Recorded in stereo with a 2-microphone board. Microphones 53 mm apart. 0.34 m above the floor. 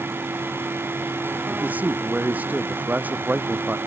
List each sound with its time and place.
1.5 s a man speaking: 30° right (ahead or behind)